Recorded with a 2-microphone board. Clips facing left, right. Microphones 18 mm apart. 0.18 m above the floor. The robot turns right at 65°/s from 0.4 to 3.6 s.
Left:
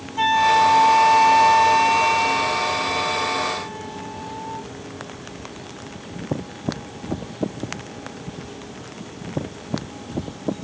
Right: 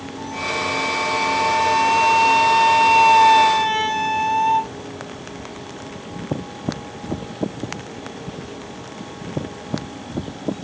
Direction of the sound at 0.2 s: 85° left.